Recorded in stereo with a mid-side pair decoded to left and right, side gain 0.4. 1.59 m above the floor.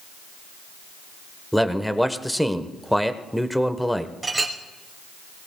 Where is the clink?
20° right, 4 m.